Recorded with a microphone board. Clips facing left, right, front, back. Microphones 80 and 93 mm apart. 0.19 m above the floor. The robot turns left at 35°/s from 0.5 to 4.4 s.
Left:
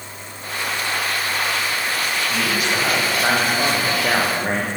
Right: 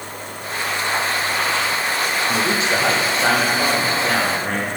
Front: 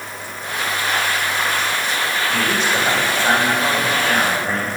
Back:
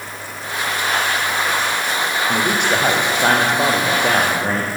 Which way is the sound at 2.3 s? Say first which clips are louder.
Right 2 dB, back 2 dB; 140° right.